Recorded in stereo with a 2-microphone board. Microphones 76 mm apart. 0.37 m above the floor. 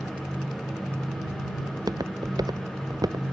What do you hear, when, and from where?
1.7 s footsteps: 60° right (ahead or behind); by 3.3 s 55° right (ahead or behind)